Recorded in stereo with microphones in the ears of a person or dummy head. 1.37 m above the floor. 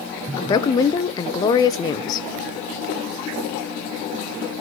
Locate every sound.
0.4 s a woman speaking: 30° left (ahead or behind), 1.0 m